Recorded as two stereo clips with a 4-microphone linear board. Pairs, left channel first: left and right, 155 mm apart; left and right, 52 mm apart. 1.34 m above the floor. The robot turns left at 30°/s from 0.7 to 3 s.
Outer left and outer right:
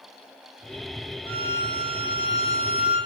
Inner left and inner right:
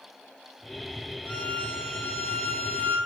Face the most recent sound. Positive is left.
turn(degrees=165)